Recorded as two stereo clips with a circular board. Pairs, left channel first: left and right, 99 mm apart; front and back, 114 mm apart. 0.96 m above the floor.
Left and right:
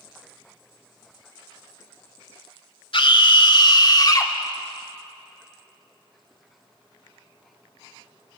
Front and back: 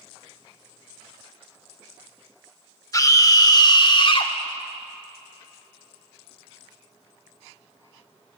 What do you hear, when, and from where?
2.9 s a scream: 60° left, 2.5 m; by 4.3 s 40° left, 2 m